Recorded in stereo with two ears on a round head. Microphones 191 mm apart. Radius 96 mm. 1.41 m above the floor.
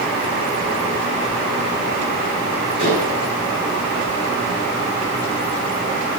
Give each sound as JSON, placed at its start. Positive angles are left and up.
{"t": 2.8, "sound": "dishes clattering", "side_deg": 30, "distance_m": 9.5}